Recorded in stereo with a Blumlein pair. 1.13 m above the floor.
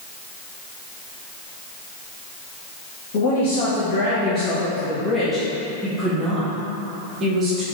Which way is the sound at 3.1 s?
50° left.